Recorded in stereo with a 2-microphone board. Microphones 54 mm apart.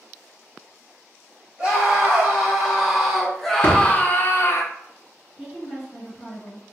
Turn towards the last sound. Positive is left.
turn(degrees=-10)  # may be behind; listen again after turning